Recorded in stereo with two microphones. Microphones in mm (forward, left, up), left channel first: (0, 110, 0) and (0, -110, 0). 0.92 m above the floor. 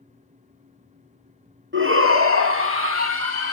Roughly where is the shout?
Right.